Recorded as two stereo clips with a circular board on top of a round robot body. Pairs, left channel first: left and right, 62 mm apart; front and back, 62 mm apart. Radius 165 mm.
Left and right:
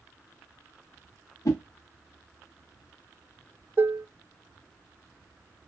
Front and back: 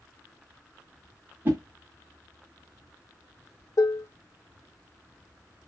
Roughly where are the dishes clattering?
Ahead right.